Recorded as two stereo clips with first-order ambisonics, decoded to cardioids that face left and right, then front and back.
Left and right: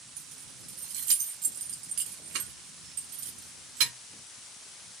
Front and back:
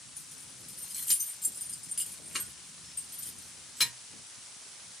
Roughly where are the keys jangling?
Right.